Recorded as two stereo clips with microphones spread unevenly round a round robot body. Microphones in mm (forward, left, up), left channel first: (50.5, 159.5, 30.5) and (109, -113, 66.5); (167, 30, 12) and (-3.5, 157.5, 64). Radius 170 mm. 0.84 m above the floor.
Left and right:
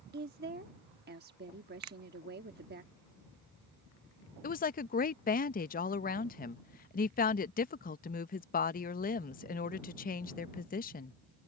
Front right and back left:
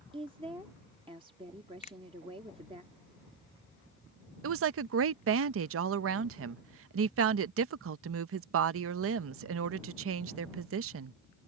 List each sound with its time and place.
0.1 s a woman speaking: 140° right
1.8 s a finger snap: 75° right
4.4 s a woman speaking: 145° left